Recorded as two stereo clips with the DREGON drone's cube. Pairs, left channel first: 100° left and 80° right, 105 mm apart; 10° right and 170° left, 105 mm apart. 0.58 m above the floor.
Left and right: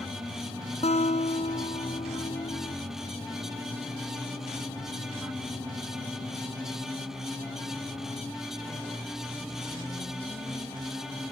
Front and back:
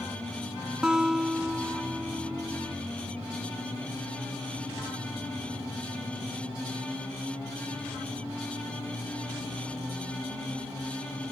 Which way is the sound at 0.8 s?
85° left.